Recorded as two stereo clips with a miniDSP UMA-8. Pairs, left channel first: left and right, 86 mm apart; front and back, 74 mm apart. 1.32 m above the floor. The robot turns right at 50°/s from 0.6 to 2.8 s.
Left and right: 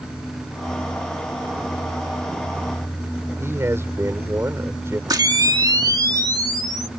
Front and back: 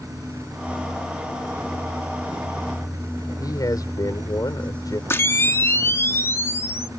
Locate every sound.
3.4 s a man speaking: 35° right
5.1 s a camera shutter: 55° right